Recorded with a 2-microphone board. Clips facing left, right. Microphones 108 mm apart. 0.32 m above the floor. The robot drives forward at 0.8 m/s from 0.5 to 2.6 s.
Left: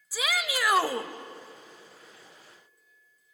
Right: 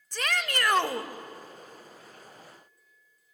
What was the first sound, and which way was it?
A shout, 5° left (ahead or behind).